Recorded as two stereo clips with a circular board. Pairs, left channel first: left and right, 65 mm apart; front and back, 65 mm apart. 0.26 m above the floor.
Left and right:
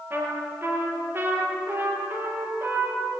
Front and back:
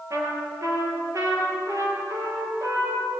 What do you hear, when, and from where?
0.1 s a trumpet: 145° right, 6 m